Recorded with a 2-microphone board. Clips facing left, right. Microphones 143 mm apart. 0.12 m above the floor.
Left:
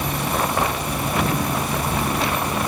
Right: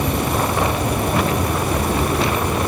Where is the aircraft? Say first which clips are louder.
Right 3 dB; 60° right (ahead or behind); by 2.7 s 50° right (ahead or behind).